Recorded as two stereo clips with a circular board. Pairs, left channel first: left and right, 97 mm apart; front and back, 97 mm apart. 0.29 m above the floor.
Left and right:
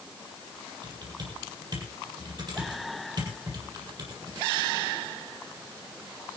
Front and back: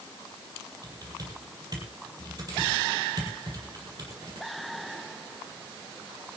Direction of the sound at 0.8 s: 135° right.